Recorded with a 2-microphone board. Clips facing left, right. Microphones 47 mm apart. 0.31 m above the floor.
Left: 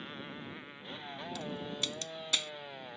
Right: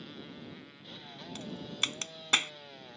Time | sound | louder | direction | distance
0.0 | a motorcycle | left 2 dB | 30° left (ahead or behind) | ?
1.4 | a crack | right 3 dB | 45° right (ahead or behind) | ?